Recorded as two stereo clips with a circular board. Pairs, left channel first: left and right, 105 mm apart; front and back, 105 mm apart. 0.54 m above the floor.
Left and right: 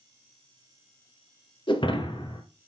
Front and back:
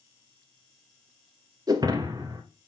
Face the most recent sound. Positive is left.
turn(degrees=130)